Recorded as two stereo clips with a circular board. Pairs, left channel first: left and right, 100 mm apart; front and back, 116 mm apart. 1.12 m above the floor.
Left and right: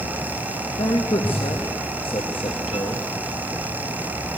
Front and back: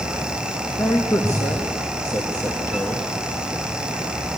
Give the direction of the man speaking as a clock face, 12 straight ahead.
10 o'clock.